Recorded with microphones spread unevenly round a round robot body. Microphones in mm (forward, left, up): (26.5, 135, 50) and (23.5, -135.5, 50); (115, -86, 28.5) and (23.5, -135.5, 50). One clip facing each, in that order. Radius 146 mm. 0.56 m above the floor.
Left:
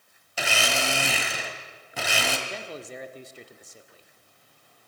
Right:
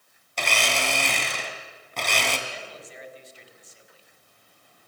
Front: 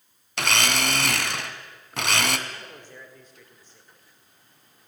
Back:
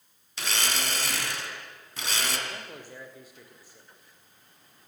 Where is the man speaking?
120° left, 1.8 m.